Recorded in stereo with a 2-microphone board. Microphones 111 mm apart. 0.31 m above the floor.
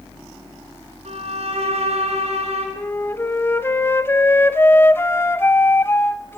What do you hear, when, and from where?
1.1 s a violin: 70° right (ahead or behind), 4 m
2.8 s a flute: 20° left (ahead or behind), 0.9 m